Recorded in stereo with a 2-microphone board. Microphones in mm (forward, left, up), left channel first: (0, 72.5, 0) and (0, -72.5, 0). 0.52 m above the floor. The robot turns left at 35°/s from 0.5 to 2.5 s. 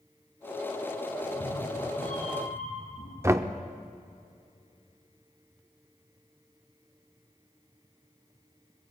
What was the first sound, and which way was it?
A cat meowing, 130° left.